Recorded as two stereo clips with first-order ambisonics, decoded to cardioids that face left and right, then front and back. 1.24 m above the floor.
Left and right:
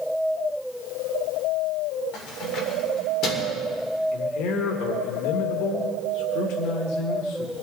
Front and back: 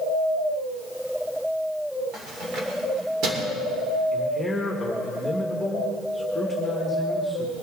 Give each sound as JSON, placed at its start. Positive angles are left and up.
{"t": 2.1, "sound": "keys jangling", "azimuth_deg": 120, "distance_m": 2.5}
{"t": 4.1, "sound": "a man speaking", "azimuth_deg": 85, "distance_m": 1.8}